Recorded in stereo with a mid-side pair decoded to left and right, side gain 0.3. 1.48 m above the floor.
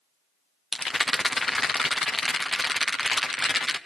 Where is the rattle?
30° left, 1.1 m.